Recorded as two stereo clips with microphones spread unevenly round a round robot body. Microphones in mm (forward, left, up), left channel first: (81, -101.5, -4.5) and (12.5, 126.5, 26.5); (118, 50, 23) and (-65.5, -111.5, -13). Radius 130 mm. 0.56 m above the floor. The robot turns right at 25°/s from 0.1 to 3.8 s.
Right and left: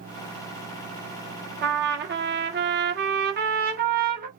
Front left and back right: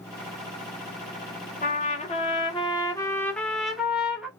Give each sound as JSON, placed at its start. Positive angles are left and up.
{"t": 1.6, "sound": "a trumpet", "azimuth_deg": 90, "distance_m": 1.1}